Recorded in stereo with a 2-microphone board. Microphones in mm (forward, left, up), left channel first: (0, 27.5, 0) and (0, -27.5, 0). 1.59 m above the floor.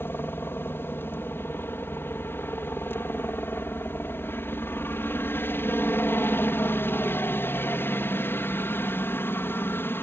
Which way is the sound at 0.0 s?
40° left (ahead or behind).